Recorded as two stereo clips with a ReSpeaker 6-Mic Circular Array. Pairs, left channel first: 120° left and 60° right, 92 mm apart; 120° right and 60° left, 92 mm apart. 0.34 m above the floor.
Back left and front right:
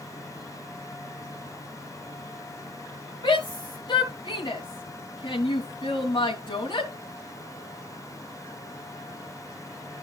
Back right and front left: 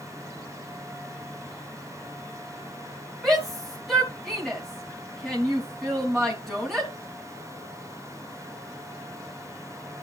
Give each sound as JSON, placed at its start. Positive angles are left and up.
{"t": 3.2, "sound": "a shout", "azimuth_deg": 150, "distance_m": 3.5}